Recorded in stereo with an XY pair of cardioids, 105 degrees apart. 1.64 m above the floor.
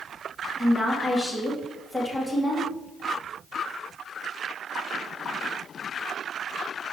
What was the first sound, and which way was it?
A woman speaking, 10° right.